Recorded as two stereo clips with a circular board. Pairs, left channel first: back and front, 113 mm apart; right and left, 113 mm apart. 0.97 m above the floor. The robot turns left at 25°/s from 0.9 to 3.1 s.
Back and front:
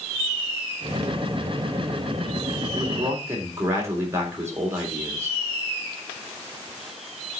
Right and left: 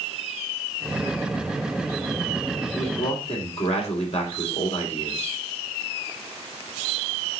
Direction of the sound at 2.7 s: 55° right.